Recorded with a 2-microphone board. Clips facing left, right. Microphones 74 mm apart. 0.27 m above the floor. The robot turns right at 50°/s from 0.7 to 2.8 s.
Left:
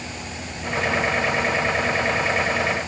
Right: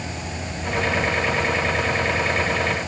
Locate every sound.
Only background noise.